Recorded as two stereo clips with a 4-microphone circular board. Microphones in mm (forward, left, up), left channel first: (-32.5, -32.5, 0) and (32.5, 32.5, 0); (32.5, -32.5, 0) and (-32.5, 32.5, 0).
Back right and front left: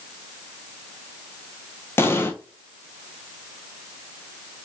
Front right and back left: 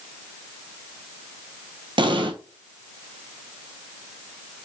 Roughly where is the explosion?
Behind.